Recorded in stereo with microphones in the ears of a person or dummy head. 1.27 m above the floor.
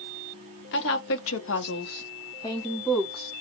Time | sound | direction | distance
0.7 | a woman speaking | 65° left (ahead or behind) | 1.2 m